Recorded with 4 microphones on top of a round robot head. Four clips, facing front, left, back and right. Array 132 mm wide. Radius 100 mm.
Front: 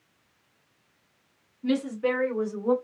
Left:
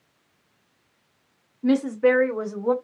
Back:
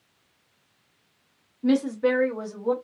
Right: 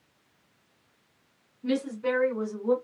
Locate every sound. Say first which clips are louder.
1.6 s a woman speaking: left 9 dB, back 4 dB; 125° left, 1.0 m; by 2.8 s 95° left, 1.3 m